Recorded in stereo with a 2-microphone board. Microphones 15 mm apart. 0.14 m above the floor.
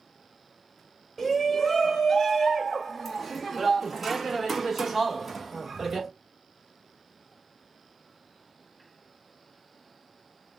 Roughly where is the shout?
Left.